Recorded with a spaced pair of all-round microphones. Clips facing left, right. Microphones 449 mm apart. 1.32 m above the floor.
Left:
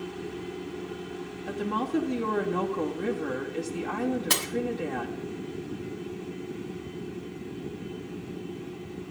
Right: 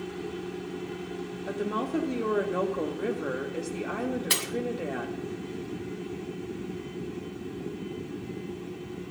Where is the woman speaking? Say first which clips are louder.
Left 1 dB; 15° left (ahead or behind), 2 m.